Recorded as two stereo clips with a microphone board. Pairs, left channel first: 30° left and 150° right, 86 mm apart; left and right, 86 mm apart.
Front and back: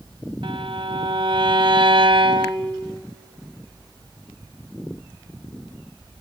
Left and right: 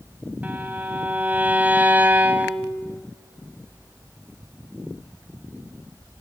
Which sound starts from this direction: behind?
A violin, at 0.4 s.